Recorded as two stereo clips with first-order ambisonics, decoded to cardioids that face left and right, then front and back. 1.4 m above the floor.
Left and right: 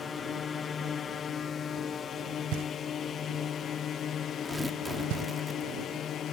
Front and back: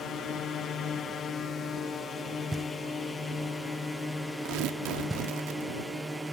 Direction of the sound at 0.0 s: 40° left.